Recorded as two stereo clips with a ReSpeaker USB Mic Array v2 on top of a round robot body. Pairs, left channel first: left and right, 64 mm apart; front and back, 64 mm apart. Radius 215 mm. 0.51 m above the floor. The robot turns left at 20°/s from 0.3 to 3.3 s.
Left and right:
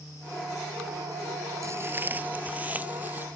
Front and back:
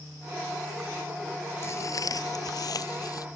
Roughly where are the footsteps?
Ahead right.